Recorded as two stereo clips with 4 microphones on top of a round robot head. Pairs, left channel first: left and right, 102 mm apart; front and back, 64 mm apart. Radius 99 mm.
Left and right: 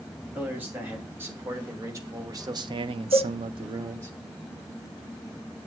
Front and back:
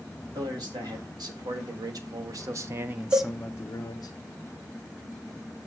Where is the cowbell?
135° left, 1.8 m.